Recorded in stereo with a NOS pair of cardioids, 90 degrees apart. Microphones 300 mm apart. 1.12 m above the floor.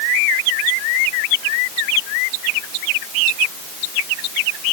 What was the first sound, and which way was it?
Only background noise.